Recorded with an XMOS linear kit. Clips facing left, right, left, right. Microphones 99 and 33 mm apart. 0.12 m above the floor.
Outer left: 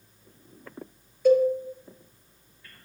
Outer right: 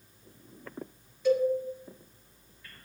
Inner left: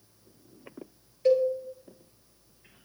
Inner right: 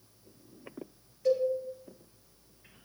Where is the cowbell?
50° left (ahead or behind), 1.9 m.